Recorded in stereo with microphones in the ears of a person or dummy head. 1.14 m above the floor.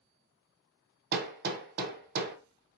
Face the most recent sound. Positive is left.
turn(degrees=-50)  # may be behind; listen again after turning